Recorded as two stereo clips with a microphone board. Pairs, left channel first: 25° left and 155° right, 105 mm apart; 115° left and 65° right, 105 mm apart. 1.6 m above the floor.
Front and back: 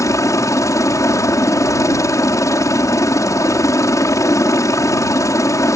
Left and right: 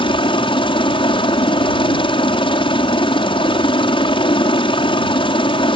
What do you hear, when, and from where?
0.0 s a helicopter: 80° left